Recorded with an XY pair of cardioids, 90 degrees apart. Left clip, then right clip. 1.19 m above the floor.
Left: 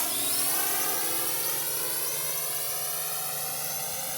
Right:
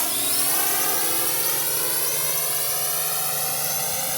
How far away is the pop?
No pop in this recording.